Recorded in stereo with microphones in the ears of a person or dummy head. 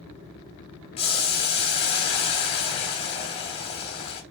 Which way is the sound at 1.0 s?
30° left (ahead or behind).